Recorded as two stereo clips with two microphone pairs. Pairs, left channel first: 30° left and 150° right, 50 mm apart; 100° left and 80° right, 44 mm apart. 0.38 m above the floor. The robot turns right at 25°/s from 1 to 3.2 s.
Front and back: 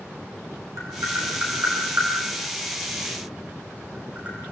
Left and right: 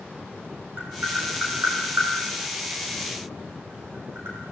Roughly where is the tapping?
Behind right.